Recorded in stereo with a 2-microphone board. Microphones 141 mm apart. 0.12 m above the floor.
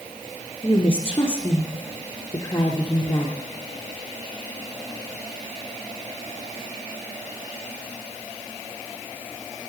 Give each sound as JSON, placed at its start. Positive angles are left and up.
{"t": 0.6, "sound": "a woman speaking", "side_deg": 20, "distance_m": 1.5}